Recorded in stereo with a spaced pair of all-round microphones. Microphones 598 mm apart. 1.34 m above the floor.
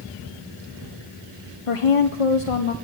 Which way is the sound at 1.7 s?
60° left (ahead or behind).